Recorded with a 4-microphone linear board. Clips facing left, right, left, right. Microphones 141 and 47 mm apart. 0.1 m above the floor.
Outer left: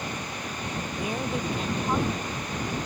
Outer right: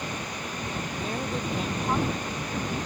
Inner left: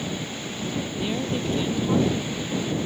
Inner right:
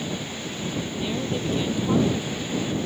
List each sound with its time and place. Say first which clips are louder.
1.0 s a woman speaking: outer left 2 dB, even; 10° left (ahead or behind); by 2.8 s 20° right (ahead or behind)